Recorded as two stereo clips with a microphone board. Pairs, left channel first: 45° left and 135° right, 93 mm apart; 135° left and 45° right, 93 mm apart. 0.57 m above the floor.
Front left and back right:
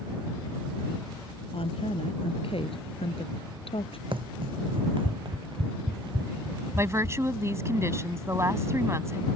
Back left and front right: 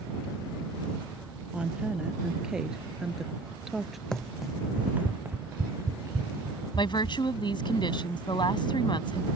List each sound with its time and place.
1.5 s a woman speaking: 35° left; by 4.0 s 45° left
4.1 s running footsteps: 145° right; by 7.2 s 95° right
6.8 s a woman speaking: 165° left